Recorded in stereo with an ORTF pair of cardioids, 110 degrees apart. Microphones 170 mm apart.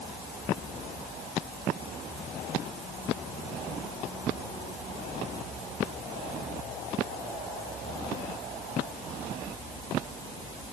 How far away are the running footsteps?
No running footsteps in this recording.